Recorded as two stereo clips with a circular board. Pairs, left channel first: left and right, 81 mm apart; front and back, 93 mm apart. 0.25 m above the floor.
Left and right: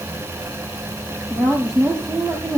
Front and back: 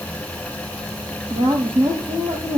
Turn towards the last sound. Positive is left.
turn(degrees=175)